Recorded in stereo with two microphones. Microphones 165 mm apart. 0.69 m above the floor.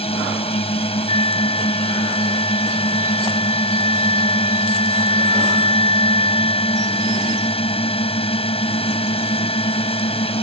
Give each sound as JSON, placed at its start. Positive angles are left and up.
{"t": 0.0, "sound": "a drone", "side_deg": 35}
{"t": 1.1, "sound": "a flute", "side_deg": 30}